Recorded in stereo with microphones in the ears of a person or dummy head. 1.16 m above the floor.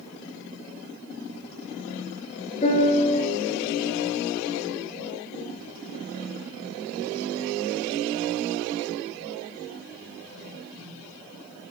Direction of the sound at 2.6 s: 30° left (ahead or behind).